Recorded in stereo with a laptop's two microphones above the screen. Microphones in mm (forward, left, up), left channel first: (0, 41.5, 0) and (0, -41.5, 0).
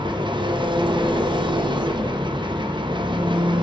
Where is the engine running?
70° right (ahead or behind), 0.8 m.